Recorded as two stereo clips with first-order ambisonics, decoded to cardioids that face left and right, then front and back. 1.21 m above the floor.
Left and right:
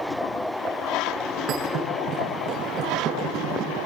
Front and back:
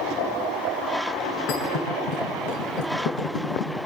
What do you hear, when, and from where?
1.5 s a thud: 40° right, 7.5 m